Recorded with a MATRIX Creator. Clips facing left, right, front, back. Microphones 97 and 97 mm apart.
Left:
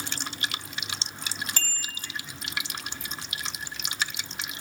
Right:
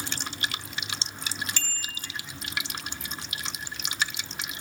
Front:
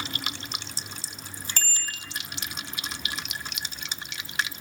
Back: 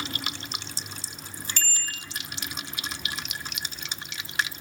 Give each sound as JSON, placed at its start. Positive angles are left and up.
{"t": 1.6, "sound": "a bicycle bell", "azimuth_deg": 45, "distance_m": 3.5}